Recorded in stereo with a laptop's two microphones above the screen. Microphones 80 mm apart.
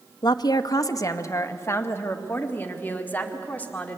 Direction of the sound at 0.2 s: 60° left (ahead or behind).